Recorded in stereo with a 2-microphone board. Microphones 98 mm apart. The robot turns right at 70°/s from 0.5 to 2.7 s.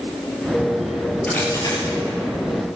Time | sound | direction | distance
1.2 | a dropped coin | 15° left (ahead or behind) | 5.5 m